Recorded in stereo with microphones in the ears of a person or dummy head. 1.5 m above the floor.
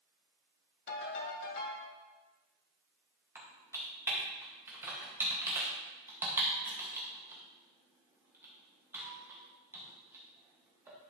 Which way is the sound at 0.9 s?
65° left (ahead or behind).